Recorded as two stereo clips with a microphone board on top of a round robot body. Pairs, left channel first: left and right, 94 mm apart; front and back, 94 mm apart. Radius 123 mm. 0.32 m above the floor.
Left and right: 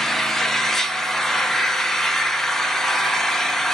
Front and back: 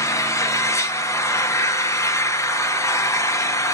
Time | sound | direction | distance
0.0 | an engine running | 10° left | 0.7 m